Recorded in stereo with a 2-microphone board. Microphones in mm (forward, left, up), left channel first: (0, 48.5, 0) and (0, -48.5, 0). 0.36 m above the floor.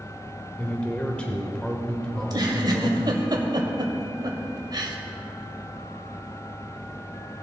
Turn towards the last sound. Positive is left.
turn(degrees=-45)  # may be behind; listen again after turning